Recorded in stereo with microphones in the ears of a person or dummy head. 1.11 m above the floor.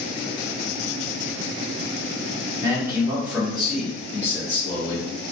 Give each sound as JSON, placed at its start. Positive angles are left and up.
{"t": 2.6, "sound": "a man speaking", "side_deg": -20, "distance_m": 1.6}